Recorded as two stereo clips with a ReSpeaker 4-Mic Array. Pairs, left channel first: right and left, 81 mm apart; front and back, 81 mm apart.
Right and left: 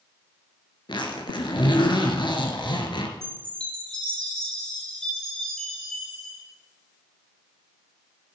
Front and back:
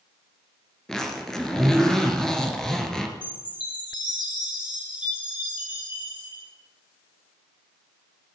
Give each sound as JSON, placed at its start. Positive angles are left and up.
{"t": 0.9, "sound": "a zipper", "azimuth_deg": -80, "distance_m": 2.5}
{"t": 3.2, "sound": "a chime", "azimuth_deg": -10, "distance_m": 7.5}